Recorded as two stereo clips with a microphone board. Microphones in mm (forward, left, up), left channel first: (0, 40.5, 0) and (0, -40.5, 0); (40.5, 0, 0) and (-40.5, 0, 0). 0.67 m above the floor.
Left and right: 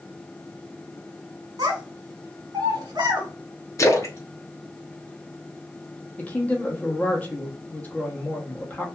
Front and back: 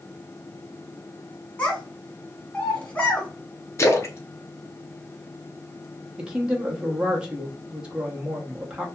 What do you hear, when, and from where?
1.6 s a child speaking: 70° right, 1.5 m
3.8 s a splash: 45° left, 0.6 m
6.2 s a woman speaking: 120° left, 0.8 m